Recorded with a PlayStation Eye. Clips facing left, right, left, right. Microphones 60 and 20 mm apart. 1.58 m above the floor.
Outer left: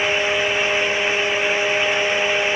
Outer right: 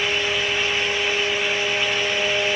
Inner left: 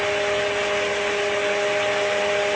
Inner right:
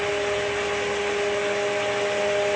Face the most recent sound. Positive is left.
No sound to turn to.